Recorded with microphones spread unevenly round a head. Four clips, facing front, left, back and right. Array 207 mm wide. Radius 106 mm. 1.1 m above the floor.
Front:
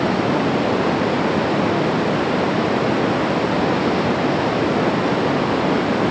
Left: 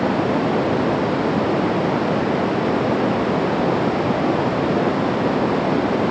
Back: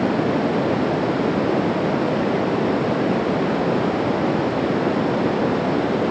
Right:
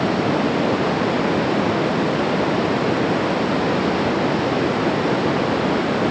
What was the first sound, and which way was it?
Only background noise.